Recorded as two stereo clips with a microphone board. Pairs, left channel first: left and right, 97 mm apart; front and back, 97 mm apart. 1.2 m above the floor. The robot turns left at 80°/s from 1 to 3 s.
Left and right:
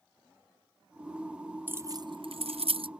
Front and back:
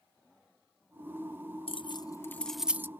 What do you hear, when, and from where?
1.7 s keys jangling: 15° right; by 2.9 s 115° right